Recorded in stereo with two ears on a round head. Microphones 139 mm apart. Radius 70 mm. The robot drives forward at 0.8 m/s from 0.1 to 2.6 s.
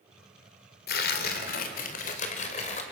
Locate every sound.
0.9 s tearing paper: 70° left (ahead or behind), 2.5 m; by 2.8 s 50° left (ahead or behind), 3 m